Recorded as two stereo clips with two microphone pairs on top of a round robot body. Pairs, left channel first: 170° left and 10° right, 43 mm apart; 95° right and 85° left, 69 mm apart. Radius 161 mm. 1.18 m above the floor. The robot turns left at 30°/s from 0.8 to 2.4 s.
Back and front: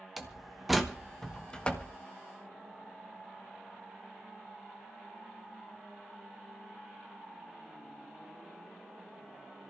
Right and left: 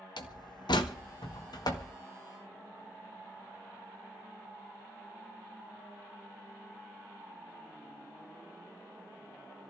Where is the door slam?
95° right, 1.7 m; by 1.9 s 130° right, 1.7 m.